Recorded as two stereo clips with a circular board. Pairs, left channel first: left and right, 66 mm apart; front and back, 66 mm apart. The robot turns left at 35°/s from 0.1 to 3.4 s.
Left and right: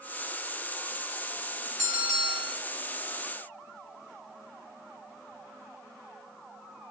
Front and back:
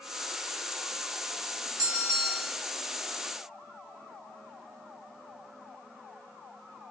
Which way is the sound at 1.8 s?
170° right.